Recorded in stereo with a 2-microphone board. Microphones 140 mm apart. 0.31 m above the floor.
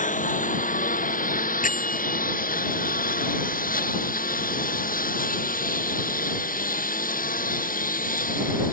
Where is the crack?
No crack in this recording.